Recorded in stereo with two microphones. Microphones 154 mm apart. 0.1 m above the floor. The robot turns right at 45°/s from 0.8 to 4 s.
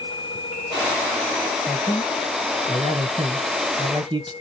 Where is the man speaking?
5° right (ahead or behind), 1.2 m; by 4.3 s 30° right (ahead or behind), 1.2 m.